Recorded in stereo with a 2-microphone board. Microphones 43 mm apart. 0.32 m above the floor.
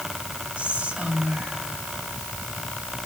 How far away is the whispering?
About 1.0 m.